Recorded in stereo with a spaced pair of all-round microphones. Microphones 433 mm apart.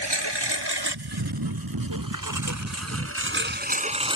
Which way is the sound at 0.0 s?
70° right (ahead or behind).